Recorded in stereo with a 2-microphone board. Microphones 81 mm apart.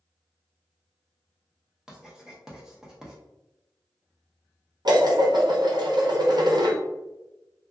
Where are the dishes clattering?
60° right (ahead or behind), 0.9 m.